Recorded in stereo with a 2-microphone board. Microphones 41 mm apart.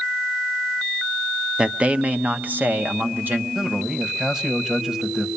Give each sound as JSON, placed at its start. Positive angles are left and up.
{"t": 1.6, "sound": "a man speaking", "side_deg": -20, "distance_m": 0.7}
{"t": 3.5, "sound": "a man speaking", "side_deg": -15, "distance_m": 1.5}